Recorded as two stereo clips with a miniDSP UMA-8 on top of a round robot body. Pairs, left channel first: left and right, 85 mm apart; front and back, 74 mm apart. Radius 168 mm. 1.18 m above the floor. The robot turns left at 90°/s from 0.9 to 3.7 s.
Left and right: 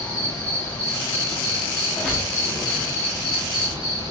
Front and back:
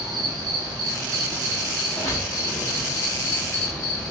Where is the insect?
165° left, 3 m; by 4.1 s 90° right, 3 m.